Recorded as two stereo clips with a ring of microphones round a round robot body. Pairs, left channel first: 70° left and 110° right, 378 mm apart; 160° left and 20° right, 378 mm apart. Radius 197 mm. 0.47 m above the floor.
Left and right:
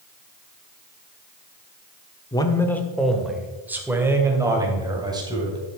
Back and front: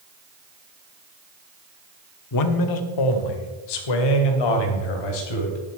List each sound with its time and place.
2.3 s a man speaking: 145° left, 0.9 m; by 5.6 s 170° left, 2.5 m